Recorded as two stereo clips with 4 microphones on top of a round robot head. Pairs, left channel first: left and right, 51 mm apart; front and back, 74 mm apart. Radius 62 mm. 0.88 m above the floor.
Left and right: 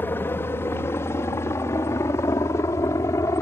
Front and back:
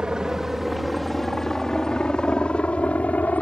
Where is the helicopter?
100° left; by 3.4 s 65° left.